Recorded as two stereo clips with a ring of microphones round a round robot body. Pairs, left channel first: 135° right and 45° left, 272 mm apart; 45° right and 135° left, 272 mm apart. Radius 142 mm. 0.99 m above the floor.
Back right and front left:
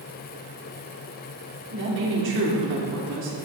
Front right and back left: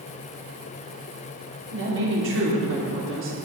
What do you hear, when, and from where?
1.7 s a woman speaking: 90° left, 3.5 m